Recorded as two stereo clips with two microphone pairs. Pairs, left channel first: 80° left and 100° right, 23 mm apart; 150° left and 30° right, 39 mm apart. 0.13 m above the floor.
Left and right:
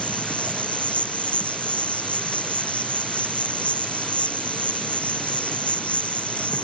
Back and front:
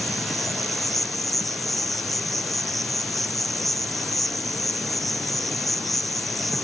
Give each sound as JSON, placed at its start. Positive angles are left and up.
{"t": 0.0, "sound": "an insect", "azimuth_deg": 65}